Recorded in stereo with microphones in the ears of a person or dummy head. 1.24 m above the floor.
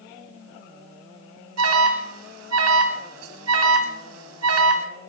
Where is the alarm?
80° right, 2.5 m.